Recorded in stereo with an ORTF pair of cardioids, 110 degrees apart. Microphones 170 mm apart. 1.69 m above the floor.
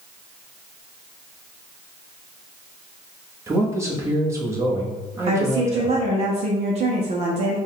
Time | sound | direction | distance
3.5 | a man speaking | 15° right | 1.2 m
5.3 | a woman speaking | 40° right | 0.9 m